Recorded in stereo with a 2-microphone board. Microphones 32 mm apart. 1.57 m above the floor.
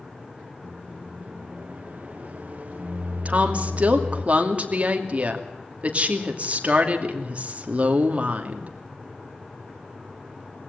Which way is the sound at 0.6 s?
45° right (ahead or behind).